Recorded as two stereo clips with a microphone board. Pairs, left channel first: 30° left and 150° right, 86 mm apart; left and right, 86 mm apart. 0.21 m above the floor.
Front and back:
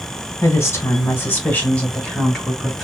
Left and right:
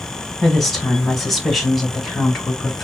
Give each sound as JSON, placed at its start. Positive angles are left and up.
{"t": 0.4, "sound": "a woman speaking", "azimuth_deg": 5, "distance_m": 1.7}